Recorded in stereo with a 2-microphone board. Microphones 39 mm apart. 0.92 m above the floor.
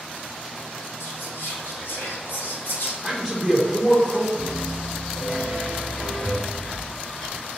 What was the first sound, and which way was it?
Whispering, 60° left (ahead or behind).